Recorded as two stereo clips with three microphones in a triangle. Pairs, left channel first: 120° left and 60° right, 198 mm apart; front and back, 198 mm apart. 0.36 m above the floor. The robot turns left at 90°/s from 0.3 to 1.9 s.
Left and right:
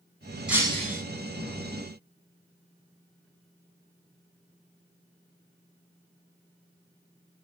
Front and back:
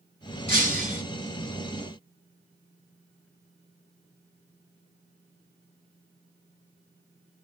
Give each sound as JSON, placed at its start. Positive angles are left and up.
{"t": 0.5, "sound": "breaking glass", "azimuth_deg": 25, "distance_m": 1.6}